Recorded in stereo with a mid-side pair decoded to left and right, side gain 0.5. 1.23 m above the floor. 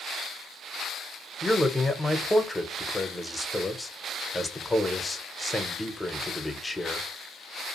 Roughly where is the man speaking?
Ahead.